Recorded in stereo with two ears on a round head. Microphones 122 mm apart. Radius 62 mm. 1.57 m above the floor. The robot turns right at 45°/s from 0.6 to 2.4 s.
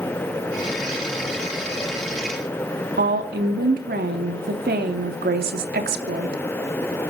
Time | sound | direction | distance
3.0 | a woman speaking | 70° right (ahead or behind) | 3 m